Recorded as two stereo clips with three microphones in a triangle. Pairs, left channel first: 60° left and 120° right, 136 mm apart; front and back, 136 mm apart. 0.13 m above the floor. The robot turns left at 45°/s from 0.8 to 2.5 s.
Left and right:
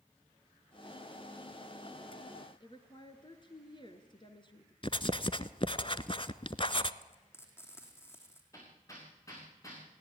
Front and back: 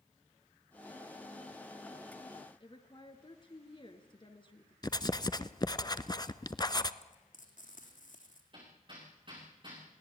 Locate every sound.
2.6 s a woman speaking: 30° left, 2 m
4.8 s writing: 40° left, 0.8 m
7.0 s frying: 10° right, 3.5 m
8.5 s hammering: 125° left, 8 m